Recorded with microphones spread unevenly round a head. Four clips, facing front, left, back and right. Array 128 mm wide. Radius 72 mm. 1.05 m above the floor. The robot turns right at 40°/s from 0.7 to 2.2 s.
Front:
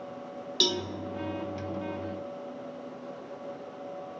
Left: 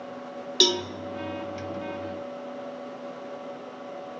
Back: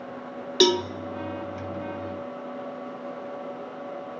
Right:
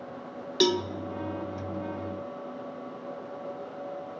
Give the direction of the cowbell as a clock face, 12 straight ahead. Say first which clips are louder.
Right 2 dB, back 11 dB; 6 o'clock.